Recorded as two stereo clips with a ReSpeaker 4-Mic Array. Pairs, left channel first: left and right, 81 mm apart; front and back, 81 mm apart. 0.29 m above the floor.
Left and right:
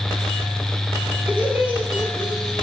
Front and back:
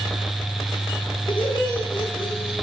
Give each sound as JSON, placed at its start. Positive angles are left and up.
{"t": 1.3, "sound": "laughter", "azimuth_deg": -15, "distance_m": 7.0}